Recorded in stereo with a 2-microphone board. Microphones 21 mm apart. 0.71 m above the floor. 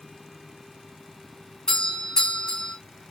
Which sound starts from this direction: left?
A doorbell, at 1.7 s.